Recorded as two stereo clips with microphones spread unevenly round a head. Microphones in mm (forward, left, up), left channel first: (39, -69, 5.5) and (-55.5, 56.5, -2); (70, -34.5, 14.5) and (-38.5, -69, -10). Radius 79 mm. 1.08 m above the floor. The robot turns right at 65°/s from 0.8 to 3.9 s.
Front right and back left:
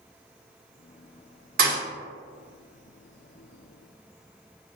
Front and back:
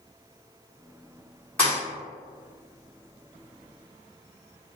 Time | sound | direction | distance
1.6 | a thud | 95° left | 1.2 m